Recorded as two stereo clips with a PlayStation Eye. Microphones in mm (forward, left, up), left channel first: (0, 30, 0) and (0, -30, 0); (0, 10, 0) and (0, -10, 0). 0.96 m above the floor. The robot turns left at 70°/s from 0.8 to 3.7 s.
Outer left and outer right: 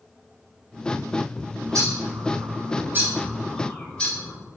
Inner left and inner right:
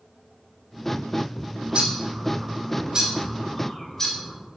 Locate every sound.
1.7 s a bird: 55° right (ahead or behind), 3 m; by 4.3 s 20° left (ahead or behind), 3 m